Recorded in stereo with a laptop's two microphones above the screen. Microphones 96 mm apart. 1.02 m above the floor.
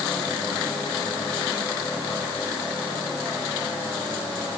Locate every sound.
Only background noise.